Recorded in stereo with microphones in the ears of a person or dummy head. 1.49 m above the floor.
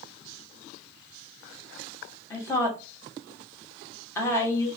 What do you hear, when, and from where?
2.3 s a woman speaking: 20° left (ahead or behind), 2 m